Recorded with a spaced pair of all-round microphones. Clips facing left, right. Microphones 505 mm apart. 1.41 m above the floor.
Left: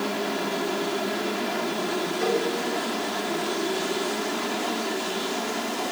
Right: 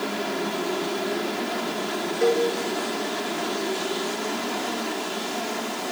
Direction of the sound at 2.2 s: 30° left (ahead or behind).